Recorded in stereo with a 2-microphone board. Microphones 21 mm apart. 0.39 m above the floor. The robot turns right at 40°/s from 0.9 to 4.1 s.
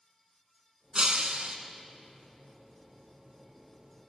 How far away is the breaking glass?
About 1.7 m.